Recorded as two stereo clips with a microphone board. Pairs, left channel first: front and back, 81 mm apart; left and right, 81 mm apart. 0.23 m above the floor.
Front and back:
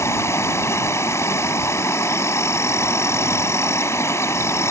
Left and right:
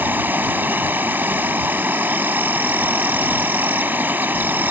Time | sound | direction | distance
0.0 | an insect | 35° right | ?